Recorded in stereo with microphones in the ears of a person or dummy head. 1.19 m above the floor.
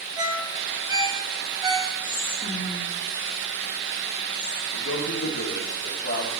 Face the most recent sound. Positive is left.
turn(degrees=60)  # may be behind; listen again after turning